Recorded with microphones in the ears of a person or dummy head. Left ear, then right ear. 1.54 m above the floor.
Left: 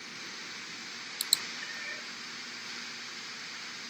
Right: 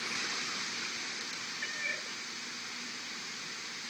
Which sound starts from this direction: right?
A cat meowing, at 1.6 s.